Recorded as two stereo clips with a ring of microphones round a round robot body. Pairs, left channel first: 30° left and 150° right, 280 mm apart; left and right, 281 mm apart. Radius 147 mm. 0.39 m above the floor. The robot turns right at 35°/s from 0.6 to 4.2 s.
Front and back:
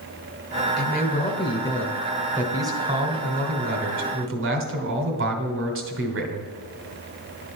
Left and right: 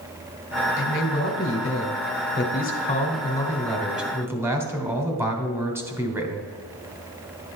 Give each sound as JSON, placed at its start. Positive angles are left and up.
{"t": 0.8, "sound": "a man speaking", "azimuth_deg": 70, "distance_m": 1.6}